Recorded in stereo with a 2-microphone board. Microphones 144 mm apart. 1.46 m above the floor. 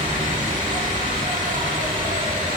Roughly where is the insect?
Right.